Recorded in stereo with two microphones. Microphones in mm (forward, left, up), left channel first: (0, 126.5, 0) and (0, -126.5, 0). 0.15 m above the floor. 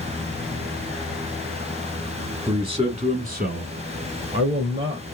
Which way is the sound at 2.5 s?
15° right (ahead or behind).